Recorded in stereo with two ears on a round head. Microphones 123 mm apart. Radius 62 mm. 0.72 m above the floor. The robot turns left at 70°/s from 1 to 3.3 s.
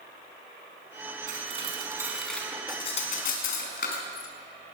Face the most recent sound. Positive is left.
turn(degrees=75)  # may be behind; listen again after turning